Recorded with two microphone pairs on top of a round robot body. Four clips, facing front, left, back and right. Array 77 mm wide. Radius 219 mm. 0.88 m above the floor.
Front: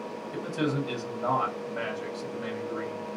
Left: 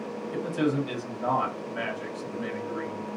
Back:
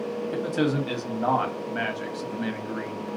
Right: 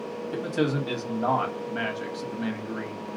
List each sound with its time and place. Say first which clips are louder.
0.3 s a man speaking: even, back 4 dB; 150° right, 1.6 m